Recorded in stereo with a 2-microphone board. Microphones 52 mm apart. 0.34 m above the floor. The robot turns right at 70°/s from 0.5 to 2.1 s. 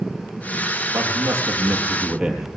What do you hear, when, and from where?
0.9 s a man speaking: 90° right, 7.5 m; by 2.5 s 5° right, 7.5 m